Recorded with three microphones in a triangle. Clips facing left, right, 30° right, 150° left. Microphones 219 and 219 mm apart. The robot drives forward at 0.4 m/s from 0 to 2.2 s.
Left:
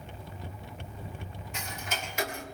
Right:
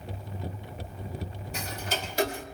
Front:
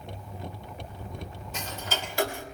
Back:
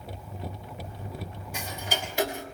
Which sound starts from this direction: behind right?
Ticking, at 1.5 s.